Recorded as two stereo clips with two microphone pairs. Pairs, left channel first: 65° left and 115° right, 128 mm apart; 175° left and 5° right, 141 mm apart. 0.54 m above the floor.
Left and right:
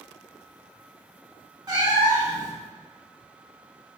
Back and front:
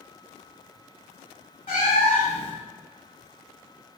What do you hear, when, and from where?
1.7 s a cat meowing: 170° right, 0.9 m